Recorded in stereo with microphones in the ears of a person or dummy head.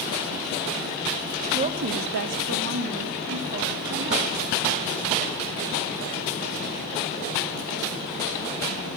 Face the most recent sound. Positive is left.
turn(degrees=-35)  # may be behind; listen again after turning